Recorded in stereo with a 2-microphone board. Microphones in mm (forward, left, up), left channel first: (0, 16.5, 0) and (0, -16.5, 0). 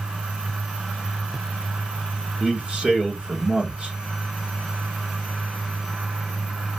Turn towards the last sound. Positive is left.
turn(degrees=-40)  # may be behind; listen again after turning